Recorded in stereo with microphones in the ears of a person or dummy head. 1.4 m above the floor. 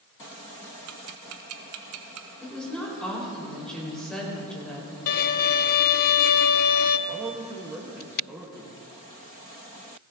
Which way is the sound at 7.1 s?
10° right (ahead or behind).